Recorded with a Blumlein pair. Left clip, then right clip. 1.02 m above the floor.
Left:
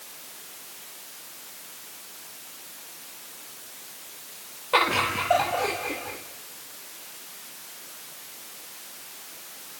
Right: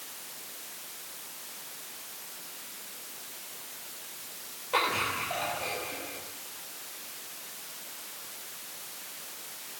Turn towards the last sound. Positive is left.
turn(degrees=50)